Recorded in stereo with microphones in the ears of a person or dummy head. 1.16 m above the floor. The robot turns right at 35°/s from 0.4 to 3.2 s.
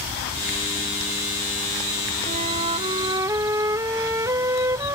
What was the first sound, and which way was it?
A flute, 55° right.